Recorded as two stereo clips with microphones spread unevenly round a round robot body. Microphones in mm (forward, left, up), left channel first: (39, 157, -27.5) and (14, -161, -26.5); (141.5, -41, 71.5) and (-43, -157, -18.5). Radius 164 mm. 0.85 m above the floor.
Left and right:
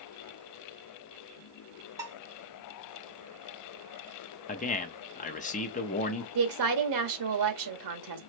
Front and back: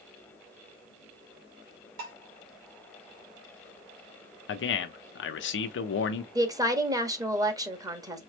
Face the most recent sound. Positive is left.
turn(degrees=-90)